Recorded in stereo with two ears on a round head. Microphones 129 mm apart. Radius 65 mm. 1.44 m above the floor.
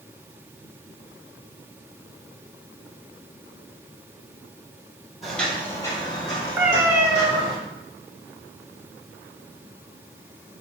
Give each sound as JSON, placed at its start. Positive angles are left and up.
{"t": 5.2, "sound": "footsteps", "side_deg": 0, "distance_m": 1.5}
{"t": 6.6, "sound": "a cat meowing", "side_deg": -15, "distance_m": 0.6}